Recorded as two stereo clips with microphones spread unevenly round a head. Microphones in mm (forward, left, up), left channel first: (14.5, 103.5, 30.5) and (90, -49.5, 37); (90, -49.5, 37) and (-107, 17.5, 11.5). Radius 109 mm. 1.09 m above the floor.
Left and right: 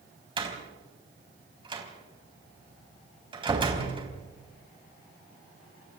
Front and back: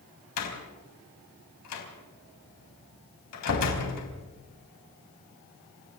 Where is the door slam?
Straight ahead, 4.5 m.